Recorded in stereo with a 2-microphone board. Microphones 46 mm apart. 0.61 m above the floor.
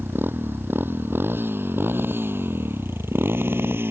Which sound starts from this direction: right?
A motorcycle, at 0.0 s.